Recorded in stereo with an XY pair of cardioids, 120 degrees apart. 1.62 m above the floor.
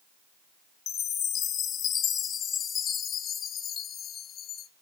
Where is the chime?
50° left, 0.7 m.